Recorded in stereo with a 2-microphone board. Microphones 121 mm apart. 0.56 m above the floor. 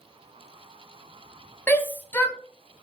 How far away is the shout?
About 0.8 m.